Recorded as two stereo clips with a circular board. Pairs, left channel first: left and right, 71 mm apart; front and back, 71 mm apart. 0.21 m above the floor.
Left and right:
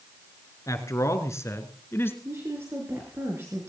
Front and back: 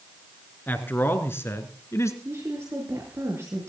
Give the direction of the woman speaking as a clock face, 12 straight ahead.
5 o'clock.